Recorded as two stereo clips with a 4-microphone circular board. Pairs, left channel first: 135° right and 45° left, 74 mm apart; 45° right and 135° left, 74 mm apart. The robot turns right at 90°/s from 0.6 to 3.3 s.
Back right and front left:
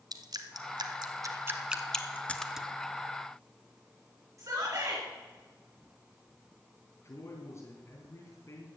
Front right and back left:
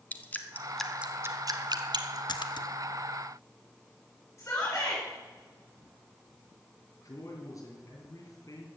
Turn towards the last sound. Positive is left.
turn(degrees=-90)